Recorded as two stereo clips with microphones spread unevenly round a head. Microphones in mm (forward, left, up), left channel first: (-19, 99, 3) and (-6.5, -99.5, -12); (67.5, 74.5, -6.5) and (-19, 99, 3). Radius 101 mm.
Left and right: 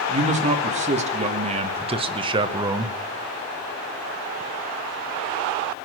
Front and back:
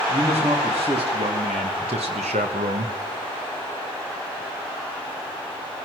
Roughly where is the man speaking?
Behind right.